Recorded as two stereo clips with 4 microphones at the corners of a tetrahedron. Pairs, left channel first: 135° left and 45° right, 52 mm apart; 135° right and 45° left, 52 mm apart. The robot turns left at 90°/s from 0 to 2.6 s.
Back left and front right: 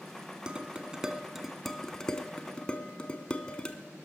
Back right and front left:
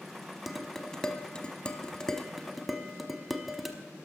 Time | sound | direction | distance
0.5 | dishes clattering | 35° right | 0.7 m